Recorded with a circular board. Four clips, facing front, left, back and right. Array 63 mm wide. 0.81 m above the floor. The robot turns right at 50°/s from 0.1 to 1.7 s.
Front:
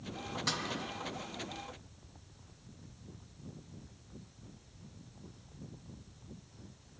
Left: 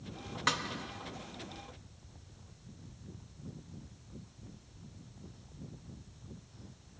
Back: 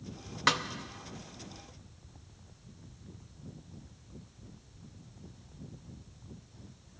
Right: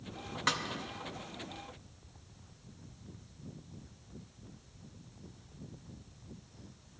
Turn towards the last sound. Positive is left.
turn(degrees=-125)